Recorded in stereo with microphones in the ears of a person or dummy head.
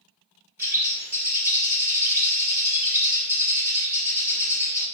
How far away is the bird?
About 1.2 m.